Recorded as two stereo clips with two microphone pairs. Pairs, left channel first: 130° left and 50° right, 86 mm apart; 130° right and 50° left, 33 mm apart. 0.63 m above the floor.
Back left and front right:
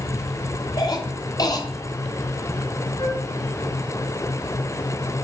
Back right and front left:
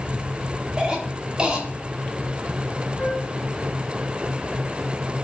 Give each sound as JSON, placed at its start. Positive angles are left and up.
{"t": 0.8, "sound": "a cough", "azimuth_deg": 105, "distance_m": 1.8}
{"t": 3.0, "sound": "a flute", "azimuth_deg": 165, "distance_m": 2.5}